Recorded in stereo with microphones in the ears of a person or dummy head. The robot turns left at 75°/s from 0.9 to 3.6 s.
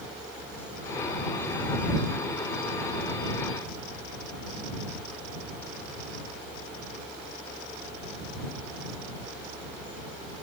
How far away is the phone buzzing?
No phone buzzing in this recording.